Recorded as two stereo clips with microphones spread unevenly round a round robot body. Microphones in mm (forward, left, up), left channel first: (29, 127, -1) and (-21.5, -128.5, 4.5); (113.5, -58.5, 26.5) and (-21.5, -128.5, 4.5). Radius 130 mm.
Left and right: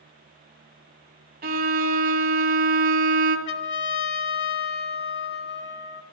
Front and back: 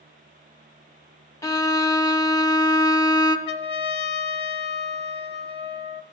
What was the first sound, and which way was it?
A violin, 45° right.